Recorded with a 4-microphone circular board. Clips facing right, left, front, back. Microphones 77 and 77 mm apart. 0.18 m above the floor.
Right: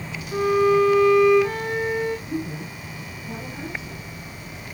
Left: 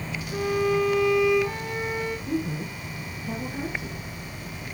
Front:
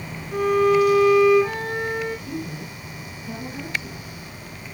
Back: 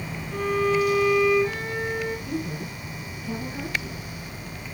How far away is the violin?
About 6.5 m.